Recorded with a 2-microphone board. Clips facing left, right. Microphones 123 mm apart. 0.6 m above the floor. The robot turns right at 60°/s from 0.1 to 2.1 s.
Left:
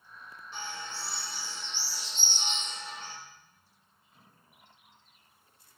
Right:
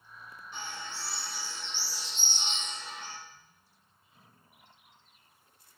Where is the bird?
30° left, 1.9 m; by 3.1 s 125° left, 1.9 m.